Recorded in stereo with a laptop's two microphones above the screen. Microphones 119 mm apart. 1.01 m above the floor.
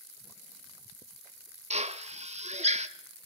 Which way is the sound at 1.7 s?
70° right (ahead or behind).